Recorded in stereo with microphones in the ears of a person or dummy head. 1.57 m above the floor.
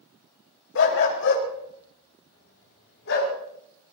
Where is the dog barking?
65° left (ahead or behind), 2.5 m; by 3.3 s 70° left (ahead or behind), 4 m.